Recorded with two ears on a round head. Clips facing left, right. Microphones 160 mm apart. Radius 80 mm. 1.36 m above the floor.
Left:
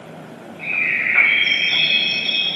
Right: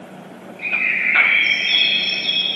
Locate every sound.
0.6 s a bird: 55° right (ahead or behind), 2 m